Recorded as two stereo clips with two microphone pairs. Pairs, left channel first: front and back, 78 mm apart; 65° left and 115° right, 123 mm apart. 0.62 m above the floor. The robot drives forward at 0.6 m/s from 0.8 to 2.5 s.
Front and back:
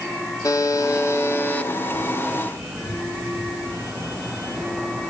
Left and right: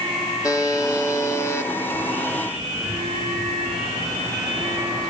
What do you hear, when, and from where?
0.4 s a buzzer: 15° left, 1.3 m; by 1.7 s 40° left, 1.0 m